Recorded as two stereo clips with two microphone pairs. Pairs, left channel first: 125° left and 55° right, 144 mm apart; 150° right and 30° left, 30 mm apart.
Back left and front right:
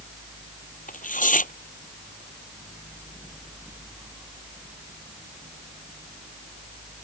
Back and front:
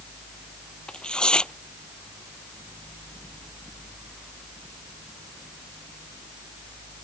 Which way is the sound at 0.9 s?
150° left.